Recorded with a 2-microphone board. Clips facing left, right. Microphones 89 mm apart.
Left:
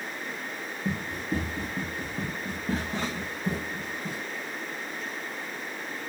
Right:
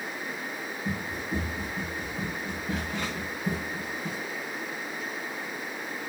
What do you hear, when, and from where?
0.8 s running footsteps: 65° left (ahead or behind), 2.5 m; by 4.2 s 10° left (ahead or behind), 3 m